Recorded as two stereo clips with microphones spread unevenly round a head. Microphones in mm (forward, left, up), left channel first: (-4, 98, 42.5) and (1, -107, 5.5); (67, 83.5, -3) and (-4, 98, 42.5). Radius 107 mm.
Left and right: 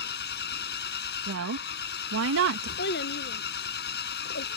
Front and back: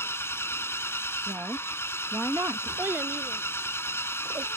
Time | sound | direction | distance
0.0 | an engine running | 50° left | ?
1.3 | a woman speaking | 110° right | ?
2.8 | a child speaking | 125° left | ?